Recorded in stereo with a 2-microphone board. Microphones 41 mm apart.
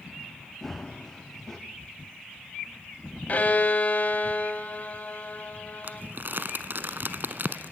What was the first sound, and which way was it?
Running footsteps, 10° left (ahead or behind).